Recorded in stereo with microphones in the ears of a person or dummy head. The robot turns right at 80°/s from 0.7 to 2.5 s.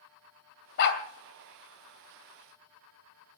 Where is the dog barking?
60° left (ahead or behind), 2 m; by 1.0 s 65° left (ahead or behind), 2 m.